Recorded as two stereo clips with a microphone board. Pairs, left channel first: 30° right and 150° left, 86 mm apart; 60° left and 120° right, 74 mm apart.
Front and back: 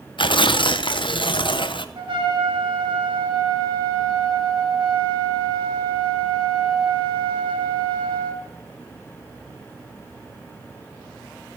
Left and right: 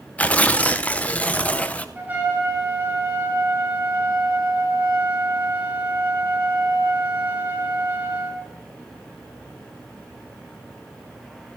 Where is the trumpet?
175° left, 3 m.